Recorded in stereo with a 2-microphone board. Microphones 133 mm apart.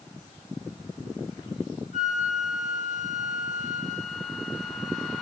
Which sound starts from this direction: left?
A flute, at 1.9 s.